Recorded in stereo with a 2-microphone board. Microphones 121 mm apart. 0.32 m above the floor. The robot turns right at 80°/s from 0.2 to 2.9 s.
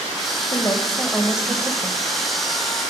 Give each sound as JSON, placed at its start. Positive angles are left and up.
{"t": 0.5, "sound": "a woman speaking", "side_deg": 35, "distance_m": 1.3}